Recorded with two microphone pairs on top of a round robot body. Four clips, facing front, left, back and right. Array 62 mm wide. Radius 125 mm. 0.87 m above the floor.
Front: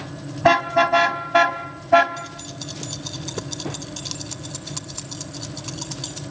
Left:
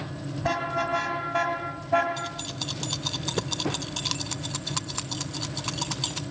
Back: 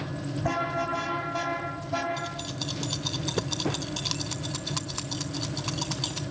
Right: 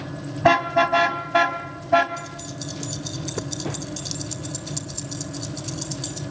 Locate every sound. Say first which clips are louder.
0.4 s a car horn: right 10 dB, front 13 dB; 35° right, 3 m; by 2.1 s 10° right, 3 m
2.2 s keys jangling: even, even; 105° left, 1.0 m